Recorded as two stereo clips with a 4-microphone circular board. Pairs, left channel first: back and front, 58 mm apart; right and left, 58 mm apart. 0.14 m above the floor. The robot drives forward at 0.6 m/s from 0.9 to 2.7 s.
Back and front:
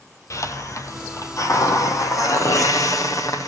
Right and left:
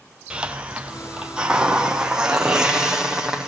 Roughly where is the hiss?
Behind.